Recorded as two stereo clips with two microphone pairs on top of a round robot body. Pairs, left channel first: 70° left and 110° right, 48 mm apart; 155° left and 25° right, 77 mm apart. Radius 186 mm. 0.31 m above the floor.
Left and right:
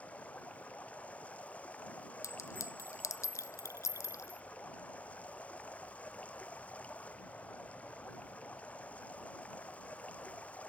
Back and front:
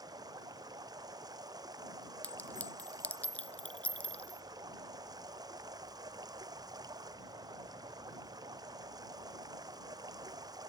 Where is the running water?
10° left.